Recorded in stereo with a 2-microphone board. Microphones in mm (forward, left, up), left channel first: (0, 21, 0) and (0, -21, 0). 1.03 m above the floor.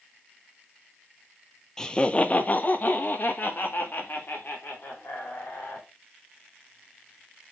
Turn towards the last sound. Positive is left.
turn(degrees=55)  # may be behind; listen again after turning